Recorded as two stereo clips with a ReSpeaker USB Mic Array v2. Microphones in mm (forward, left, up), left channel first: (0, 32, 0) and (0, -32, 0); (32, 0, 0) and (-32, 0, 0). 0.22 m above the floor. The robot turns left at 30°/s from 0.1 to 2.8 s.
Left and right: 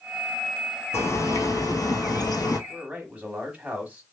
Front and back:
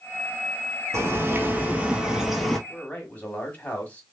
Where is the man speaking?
40° right, 1.2 m.